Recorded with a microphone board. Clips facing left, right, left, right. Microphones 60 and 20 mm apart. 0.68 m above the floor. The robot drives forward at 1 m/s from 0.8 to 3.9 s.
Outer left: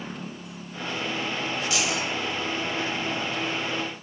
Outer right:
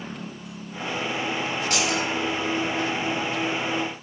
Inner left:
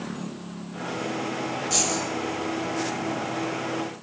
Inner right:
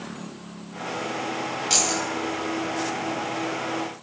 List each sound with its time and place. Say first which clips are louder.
1.7 s keys jangling: outer right 3 dB, inner right 3 dB; 50° right (ahead or behind), 2.5 m; by 2.0 s 55° right (ahead or behind), 2 m